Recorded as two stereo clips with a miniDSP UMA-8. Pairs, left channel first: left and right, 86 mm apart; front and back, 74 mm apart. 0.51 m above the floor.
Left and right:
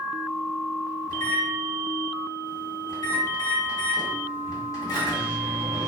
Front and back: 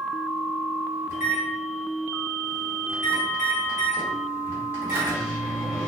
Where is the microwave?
125° left, 1.3 m.